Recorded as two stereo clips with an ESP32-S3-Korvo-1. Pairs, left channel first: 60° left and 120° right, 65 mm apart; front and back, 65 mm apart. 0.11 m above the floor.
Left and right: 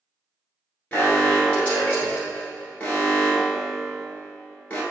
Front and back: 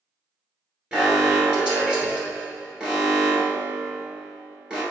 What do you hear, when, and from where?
0.9 s an alarm: 110° left, 1.6 m